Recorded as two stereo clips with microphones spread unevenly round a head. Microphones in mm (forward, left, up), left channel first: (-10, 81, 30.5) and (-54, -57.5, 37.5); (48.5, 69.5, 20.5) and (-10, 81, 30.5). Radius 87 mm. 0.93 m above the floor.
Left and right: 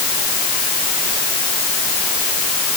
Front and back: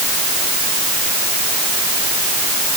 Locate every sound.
Only background noise.